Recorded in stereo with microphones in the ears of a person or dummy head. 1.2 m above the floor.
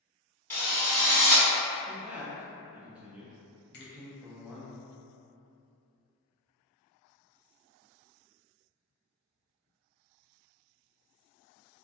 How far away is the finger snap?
About 0.7 m.